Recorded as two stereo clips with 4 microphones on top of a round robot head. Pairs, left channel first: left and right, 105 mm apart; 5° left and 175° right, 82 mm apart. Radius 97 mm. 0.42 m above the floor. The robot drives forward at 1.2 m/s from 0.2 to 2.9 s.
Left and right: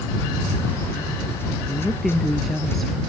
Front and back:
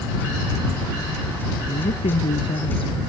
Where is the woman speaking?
Straight ahead.